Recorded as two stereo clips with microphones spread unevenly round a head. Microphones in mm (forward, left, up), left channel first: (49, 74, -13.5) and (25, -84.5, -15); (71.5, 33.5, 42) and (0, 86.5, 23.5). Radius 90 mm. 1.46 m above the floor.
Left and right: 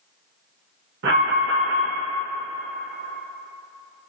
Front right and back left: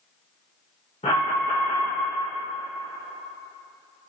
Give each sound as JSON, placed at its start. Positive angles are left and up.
{"t": 1.0, "sound": "an alarm", "azimuth_deg": -85, "distance_m": 1.9}